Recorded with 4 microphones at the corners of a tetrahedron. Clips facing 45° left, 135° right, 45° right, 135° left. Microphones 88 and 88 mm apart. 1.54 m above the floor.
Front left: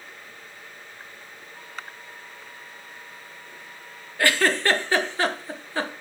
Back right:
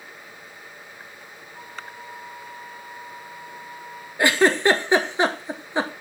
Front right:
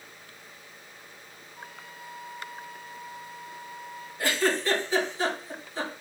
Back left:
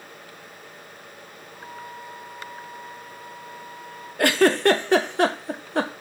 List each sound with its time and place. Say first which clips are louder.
1.5 s a flute: back right 2 dB, back left 7 dB; 105° left, 4.5 m
4.2 s a giggle: back right 4 dB, back left 8 dB; 155° left, 0.9 m